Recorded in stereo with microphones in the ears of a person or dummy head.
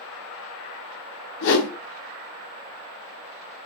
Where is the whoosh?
70° left (ahead or behind), 0.6 m.